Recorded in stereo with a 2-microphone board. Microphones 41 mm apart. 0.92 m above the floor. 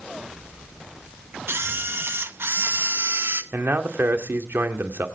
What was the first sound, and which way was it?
A camera shutter, 65° right (ahead or behind).